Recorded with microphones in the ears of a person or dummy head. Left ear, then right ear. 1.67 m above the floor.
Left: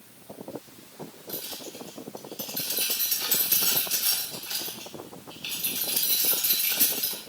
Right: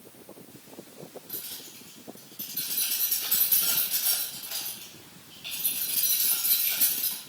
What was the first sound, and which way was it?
Keys jangling, 35° left (ahead or behind).